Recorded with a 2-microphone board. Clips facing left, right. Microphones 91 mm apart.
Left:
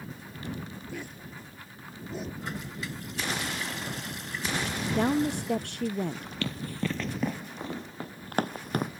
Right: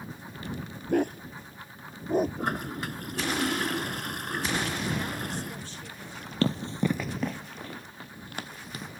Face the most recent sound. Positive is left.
turn(degrees=60)  # may be behind; listen again after turning